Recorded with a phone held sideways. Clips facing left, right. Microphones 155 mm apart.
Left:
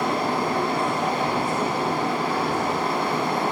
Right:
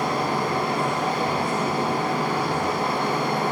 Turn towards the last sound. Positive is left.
turn(degrees=25)  # may be behind; listen again after turning